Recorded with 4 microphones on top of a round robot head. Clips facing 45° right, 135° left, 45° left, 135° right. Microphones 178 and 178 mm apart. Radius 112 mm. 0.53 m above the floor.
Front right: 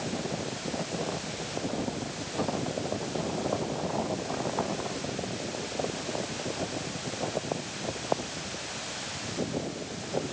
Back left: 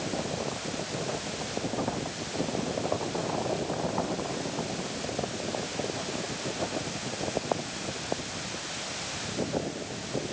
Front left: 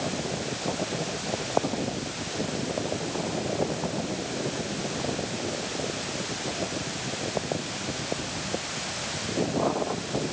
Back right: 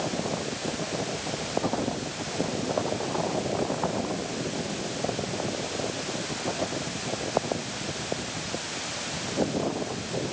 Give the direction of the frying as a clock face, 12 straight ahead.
No frying in this recording.